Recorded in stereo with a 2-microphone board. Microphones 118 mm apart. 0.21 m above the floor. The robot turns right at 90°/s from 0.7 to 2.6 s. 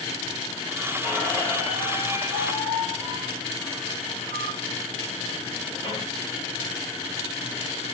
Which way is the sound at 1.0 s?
5° right.